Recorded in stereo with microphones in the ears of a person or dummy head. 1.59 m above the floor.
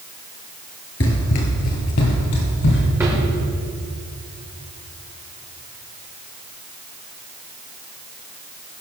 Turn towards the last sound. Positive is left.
turn(degrees=-10)  # may be behind; listen again after turning